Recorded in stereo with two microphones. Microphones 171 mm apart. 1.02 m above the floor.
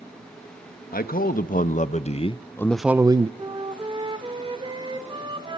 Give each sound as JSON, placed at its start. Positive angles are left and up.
{"t": 0.9, "sound": "a man speaking", "side_deg": 60, "distance_m": 1.4}
{"t": 3.4, "sound": "a flute", "side_deg": -30, "distance_m": 2.5}